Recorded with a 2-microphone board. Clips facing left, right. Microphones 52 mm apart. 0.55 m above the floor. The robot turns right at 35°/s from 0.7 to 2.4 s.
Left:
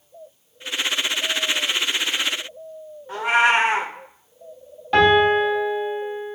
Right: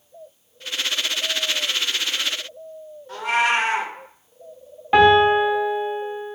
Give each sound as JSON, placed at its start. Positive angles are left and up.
{"t": 3.1, "sound": "a cat meowing", "side_deg": 20, "distance_m": 0.7}
{"t": 4.9, "sound": "a piano", "side_deg": -20, "distance_m": 0.9}